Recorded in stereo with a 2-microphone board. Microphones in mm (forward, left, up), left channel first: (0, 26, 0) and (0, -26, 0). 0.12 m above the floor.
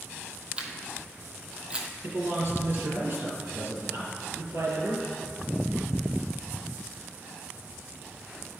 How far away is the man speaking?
About 2.5 m.